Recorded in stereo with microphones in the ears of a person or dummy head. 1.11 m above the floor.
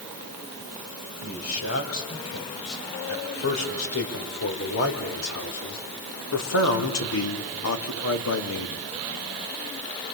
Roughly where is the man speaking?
Left.